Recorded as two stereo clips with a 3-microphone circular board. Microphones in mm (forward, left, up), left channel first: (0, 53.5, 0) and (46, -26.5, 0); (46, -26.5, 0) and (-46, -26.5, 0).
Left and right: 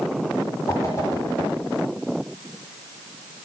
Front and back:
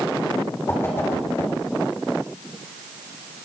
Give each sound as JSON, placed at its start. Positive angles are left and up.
{"t": 0.7, "sound": "a whoosh", "azimuth_deg": 65, "distance_m": 4.0}